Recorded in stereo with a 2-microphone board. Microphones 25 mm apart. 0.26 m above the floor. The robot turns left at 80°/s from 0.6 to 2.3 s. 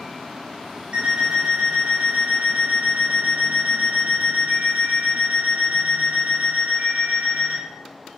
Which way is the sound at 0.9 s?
140° right.